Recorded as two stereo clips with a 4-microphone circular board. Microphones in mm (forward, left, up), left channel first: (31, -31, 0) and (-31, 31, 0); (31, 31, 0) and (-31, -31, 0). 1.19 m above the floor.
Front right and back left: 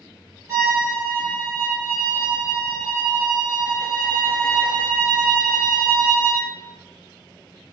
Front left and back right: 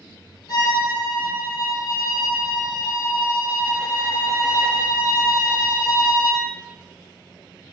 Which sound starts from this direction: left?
A violin, at 0.5 s.